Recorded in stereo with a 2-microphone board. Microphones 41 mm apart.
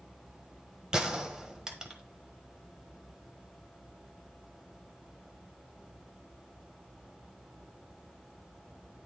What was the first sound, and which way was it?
A gunshot, 15° right (ahead or behind).